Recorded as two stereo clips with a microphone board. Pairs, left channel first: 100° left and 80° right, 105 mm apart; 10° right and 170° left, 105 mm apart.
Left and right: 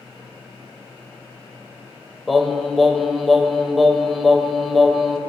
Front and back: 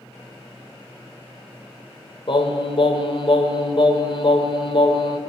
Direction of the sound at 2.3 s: 10° left.